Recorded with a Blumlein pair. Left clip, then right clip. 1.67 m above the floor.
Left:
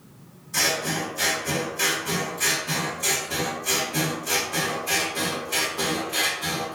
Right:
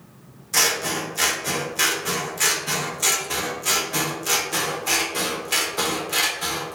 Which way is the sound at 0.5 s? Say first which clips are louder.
Right 3 dB; 60° right.